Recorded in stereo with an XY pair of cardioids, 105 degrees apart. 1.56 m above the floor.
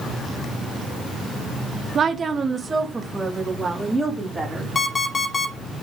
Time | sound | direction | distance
1.9 | a woman speaking | 50° right | 0.9 m
4.8 | an alarm clock | 30° left | 2.5 m